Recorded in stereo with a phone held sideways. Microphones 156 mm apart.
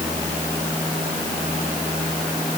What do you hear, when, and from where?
Only background noise.